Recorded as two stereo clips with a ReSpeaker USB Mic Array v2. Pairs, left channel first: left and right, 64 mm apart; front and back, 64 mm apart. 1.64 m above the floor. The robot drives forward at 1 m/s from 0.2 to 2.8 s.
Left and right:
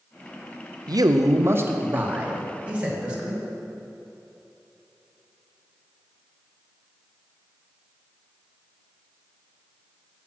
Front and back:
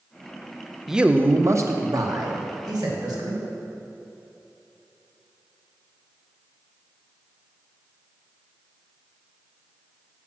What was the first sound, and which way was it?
A man speaking, 95° right.